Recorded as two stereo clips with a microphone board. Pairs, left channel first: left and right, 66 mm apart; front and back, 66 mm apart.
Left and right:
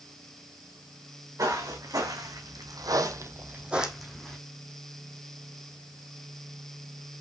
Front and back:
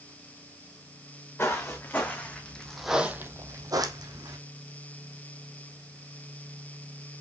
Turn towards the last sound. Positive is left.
turn(degrees=175)